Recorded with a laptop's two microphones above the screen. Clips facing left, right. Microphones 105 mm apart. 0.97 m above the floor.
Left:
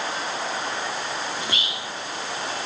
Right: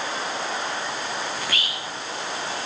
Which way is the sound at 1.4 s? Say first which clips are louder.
Even; 20° left (ahead or behind).